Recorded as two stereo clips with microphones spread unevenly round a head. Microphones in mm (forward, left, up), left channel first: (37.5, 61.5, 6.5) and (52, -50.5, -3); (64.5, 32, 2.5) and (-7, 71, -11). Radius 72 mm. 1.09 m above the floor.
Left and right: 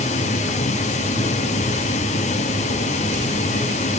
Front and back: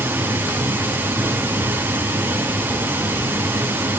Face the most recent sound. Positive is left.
turn(degrees=90)